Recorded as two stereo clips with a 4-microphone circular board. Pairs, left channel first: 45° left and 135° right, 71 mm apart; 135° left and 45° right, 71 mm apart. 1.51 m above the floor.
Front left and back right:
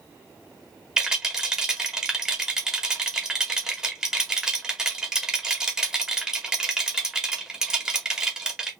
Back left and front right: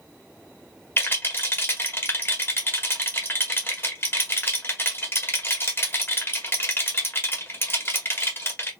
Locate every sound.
1.0 s a rattle: 150° left, 1.4 m